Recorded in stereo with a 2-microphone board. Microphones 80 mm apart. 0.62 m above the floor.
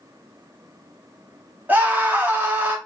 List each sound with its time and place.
1.7 s a scream: 20° right (ahead or behind), 1.4 m